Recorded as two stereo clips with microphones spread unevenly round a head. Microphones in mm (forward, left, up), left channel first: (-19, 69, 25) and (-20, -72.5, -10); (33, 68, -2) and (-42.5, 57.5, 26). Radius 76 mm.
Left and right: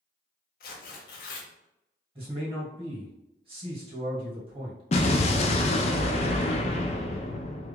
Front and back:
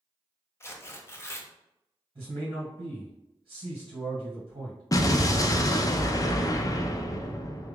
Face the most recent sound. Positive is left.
turn(degrees=60)